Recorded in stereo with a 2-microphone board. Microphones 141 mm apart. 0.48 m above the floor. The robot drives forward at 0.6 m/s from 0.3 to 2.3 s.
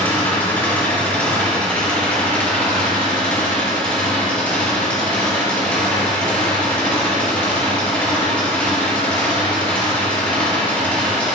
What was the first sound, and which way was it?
An engine running, 15° left (ahead or behind).